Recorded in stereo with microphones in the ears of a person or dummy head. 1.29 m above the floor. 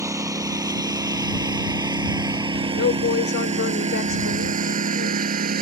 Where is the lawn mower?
15° right (ahead or behind); by 5.6 s 45° right (ahead or behind).